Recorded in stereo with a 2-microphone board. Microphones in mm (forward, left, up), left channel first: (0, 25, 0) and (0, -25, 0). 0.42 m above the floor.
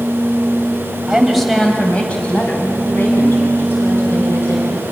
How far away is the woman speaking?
About 2.5 m.